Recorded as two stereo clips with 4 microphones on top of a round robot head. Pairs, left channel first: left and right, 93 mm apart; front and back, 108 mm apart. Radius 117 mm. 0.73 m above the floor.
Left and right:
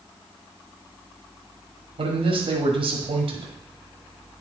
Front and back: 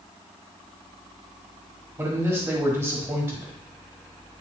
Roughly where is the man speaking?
Right.